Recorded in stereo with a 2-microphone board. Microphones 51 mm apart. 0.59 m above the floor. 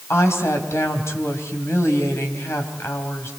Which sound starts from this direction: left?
A woman speaking, at 0.1 s.